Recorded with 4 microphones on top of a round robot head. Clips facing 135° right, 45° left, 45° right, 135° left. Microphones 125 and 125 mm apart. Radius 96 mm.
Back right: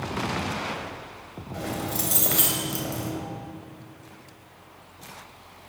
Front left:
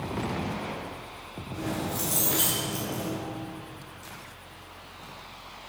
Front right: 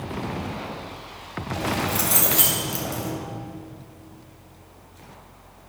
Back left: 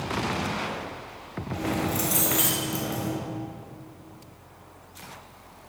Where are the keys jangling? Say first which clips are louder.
Back right 1 dB, front right 1 dB; 105° right, 3 m.